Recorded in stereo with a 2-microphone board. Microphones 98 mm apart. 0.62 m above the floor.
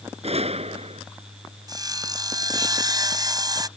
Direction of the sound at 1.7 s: 40° right (ahead or behind).